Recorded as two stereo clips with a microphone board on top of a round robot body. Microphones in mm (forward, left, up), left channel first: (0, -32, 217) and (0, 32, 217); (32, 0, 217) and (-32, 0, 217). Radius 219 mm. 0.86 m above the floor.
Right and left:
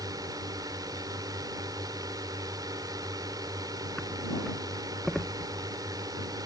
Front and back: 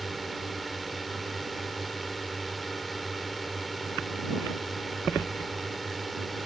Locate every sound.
0.0 s a drone: 90° left